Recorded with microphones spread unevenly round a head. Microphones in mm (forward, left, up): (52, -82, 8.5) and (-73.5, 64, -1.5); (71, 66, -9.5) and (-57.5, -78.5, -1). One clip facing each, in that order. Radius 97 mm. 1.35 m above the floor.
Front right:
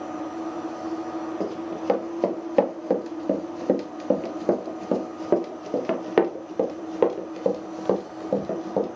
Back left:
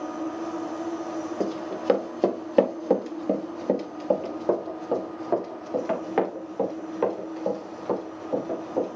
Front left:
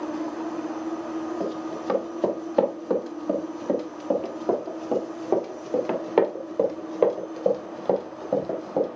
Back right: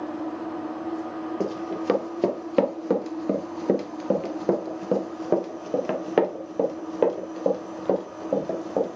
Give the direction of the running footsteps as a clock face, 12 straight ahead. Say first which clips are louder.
Even, back right 1 dB; 5 o'clock.